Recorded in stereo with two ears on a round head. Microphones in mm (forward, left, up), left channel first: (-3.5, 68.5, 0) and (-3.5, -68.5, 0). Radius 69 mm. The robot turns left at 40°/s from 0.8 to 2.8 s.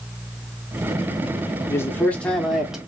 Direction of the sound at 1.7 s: 35° left.